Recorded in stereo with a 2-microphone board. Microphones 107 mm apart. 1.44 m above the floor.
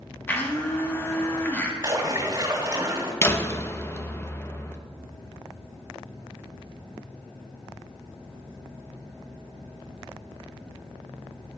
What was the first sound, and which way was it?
A blender, 20° left (ahead or behind).